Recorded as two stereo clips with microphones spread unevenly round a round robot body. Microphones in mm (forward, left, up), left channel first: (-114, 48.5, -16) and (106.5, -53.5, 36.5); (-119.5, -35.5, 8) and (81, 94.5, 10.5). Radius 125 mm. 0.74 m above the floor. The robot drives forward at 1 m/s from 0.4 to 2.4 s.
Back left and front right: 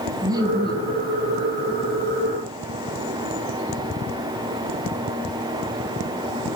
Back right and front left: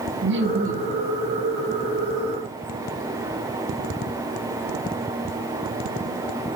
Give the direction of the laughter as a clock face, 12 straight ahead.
10 o'clock.